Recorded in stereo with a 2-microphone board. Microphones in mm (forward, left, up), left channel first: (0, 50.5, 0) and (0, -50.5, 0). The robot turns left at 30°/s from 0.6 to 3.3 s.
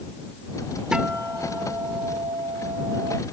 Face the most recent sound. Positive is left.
turn(degrees=-80)